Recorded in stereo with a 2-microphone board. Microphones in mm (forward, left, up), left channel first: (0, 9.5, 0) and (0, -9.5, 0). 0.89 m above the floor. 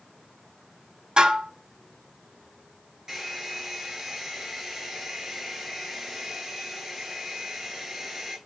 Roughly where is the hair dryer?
Right.